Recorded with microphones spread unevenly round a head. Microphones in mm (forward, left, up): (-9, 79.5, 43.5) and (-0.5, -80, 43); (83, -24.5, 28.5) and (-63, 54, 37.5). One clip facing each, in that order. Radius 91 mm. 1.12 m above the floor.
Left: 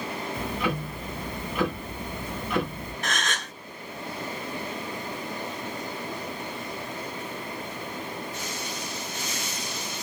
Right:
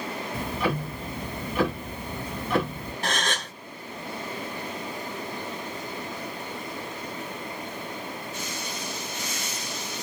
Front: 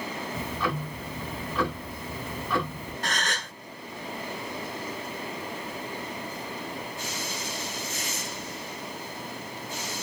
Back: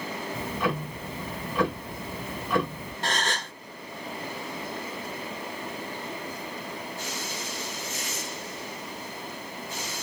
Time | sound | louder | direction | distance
0.3 | ticking | right 2 dB, back 2 dB | 135° right | 1.3 m
3.0 | a gasp | right 3 dB, back 3 dB | 145° right | 0.7 m